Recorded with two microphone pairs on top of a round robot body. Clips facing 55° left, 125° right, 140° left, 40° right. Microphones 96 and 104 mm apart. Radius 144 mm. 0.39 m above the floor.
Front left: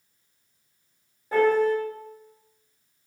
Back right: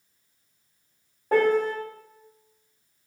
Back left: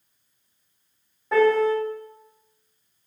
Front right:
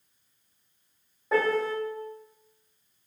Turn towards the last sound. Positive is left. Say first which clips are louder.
# front left 1 dB, back left 7 dB
turn(degrees=-120)